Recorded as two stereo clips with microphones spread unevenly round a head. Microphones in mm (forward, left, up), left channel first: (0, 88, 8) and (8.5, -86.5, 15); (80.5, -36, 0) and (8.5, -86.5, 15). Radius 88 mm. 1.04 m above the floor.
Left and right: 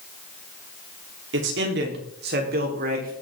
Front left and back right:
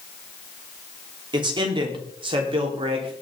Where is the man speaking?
110° right, 3.5 m; by 3.1 s 130° right, 4 m.